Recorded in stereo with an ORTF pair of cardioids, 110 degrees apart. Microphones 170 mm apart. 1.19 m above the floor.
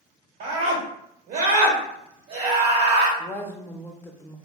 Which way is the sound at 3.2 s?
15° left.